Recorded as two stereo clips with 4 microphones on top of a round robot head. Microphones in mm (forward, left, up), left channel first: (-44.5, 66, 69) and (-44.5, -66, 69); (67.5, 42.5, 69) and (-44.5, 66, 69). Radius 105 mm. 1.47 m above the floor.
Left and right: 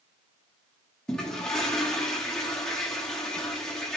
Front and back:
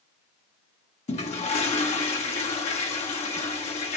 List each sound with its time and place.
1.1 s a toilet flushing: 5° left, 1.1 m